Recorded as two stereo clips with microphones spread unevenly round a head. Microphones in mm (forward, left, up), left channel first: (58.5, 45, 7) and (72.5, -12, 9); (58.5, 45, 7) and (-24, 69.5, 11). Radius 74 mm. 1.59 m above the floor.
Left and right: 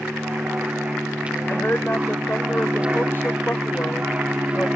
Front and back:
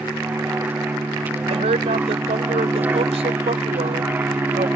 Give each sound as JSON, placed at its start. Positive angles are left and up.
{"t": 0.0, "sound": "an aircraft", "azimuth_deg": -135}
{"t": 1.5, "sound": "a woman speaking", "azimuth_deg": 180}